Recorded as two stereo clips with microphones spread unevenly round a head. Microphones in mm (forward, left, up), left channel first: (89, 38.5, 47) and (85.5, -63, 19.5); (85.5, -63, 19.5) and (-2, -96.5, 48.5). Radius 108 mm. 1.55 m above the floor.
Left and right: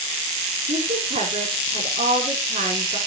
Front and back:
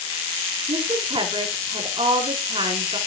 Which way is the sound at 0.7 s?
130° right.